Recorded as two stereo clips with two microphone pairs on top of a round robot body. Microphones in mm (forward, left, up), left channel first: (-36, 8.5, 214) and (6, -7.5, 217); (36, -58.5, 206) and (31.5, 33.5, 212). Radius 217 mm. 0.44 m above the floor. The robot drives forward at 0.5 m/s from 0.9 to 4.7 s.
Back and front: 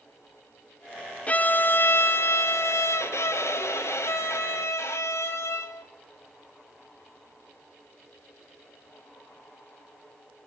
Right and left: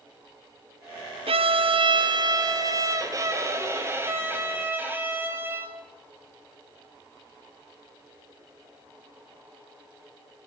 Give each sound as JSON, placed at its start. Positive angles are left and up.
{"t": 1.3, "sound": "a violin", "azimuth_deg": 100, "distance_m": 0.7}